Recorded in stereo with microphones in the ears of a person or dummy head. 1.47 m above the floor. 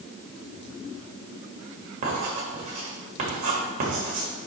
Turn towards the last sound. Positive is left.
turn(degrees=-45)  # may be behind; listen again after turning